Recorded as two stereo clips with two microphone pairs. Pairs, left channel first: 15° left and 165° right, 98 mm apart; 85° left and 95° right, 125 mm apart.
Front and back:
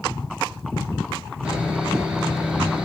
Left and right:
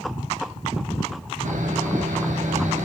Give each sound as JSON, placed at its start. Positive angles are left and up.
{"t": 1.4, "sound": "sawing", "azimuth_deg": -90, "distance_m": 2.5}